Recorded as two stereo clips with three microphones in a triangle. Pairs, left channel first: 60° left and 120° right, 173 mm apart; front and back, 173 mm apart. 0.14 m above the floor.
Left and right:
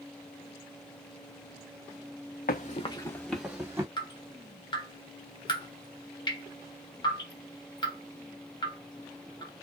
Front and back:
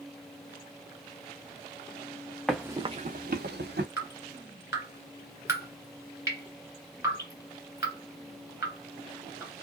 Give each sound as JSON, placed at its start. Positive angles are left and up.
{"t": 2.5, "sound": "running footsteps", "azimuth_deg": 85, "distance_m": 0.7}
{"t": 4.0, "sound": "dripping", "azimuth_deg": 110, "distance_m": 1.5}